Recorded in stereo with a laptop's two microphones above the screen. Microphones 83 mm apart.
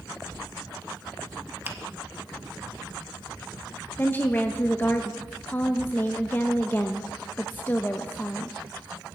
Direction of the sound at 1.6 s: 25° right (ahead or behind).